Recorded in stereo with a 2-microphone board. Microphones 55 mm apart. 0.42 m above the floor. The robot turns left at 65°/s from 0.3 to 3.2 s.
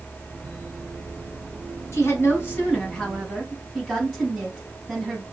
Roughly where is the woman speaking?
Left.